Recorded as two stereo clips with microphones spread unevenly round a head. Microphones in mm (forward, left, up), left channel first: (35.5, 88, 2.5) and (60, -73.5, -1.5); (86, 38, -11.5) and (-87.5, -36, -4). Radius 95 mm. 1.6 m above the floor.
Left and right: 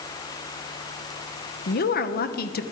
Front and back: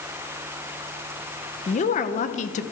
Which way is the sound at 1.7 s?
75° left.